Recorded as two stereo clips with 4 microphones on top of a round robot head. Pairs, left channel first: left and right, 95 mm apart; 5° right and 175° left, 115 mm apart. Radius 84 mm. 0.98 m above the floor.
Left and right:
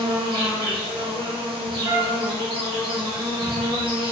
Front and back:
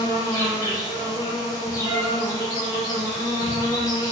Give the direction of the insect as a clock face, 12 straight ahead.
2 o'clock.